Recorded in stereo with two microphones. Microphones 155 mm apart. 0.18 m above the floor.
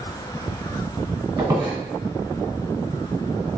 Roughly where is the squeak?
Right.